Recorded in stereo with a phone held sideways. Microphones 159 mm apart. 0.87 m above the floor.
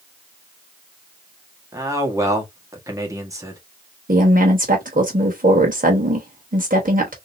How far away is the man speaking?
About 1.4 m.